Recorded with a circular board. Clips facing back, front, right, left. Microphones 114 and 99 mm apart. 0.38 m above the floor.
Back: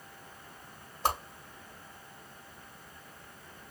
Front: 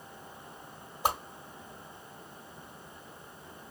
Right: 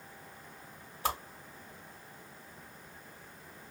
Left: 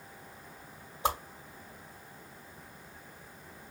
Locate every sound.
1.0 s a whoosh: 60° left, 1.0 m